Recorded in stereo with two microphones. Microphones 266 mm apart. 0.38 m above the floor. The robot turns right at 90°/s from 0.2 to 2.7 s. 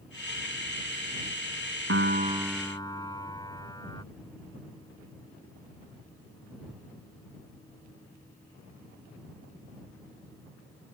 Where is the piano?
60° right; by 4.0 s 15° left.